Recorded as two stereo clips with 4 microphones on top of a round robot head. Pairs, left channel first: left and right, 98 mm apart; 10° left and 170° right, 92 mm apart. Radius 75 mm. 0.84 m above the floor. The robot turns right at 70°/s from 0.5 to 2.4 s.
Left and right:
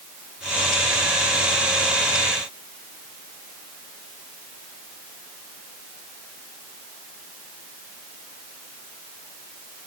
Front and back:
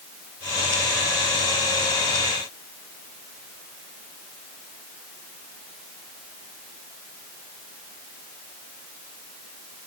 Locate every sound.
Only background noise.